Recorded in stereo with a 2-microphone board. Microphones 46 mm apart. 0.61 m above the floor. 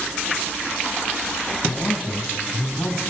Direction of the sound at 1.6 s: 45° left (ahead or behind).